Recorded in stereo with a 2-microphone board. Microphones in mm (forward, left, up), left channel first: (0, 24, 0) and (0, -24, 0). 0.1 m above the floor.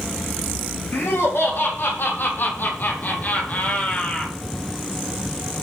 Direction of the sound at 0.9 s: 60° left (ahead or behind).